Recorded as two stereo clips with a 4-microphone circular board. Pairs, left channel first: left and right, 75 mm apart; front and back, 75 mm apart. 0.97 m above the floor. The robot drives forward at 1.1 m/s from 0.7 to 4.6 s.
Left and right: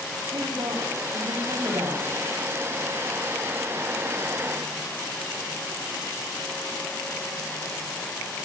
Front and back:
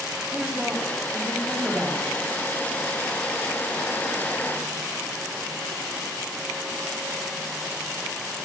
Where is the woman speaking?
100° right, 5 m; by 2.1 s 120° right, 5.5 m.